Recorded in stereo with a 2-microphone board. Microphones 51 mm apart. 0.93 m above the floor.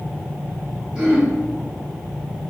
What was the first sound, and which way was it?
Throat clearing, 20° right (ahead or behind).